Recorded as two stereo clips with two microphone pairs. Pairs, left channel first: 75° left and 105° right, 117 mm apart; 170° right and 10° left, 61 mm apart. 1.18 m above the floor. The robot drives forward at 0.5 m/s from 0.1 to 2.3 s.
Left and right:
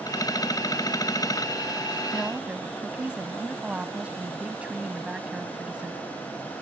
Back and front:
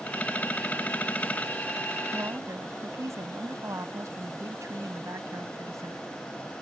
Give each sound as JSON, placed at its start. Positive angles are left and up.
{"t": 2.1, "sound": "a woman speaking", "azimuth_deg": -25}